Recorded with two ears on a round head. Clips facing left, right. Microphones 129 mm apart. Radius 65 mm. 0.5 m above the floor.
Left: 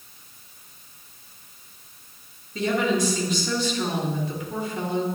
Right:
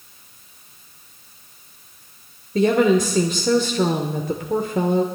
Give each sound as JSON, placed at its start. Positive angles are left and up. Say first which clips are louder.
{"t": 2.5, "sound": "a woman speaking", "louder": "right 7 dB", "side_deg": -45, "distance_m": 1.4}